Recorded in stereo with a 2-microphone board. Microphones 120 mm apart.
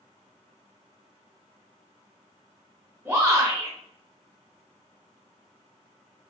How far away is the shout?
About 1.5 m.